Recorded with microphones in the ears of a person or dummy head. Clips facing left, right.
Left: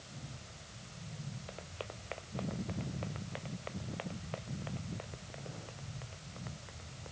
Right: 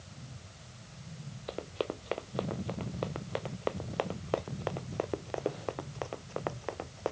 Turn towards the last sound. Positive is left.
turn(degrees=-80)